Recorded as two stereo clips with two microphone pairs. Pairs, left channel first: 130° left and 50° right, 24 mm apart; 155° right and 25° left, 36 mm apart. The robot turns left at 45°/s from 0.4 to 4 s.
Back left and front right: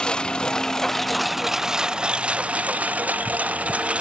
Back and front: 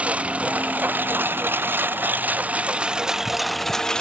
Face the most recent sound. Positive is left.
turn(degrees=-85)